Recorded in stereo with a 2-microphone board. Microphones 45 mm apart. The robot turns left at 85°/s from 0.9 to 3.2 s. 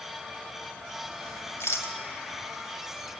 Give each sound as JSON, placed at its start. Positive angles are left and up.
{"t": 1.6, "sound": "a rattle", "side_deg": 70, "distance_m": 2.5}